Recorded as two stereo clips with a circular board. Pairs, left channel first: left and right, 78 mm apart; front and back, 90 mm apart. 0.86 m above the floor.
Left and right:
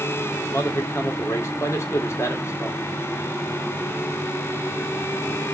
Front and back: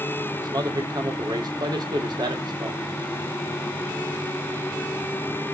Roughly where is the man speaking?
Behind left.